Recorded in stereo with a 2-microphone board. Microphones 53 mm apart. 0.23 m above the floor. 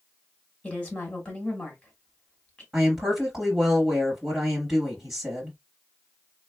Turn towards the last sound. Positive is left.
turn(degrees=-5)  # may be behind; listen again after turning